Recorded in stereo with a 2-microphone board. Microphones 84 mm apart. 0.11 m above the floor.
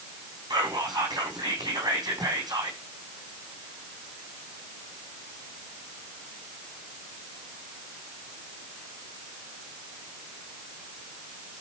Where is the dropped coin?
I don't hear a dropped coin.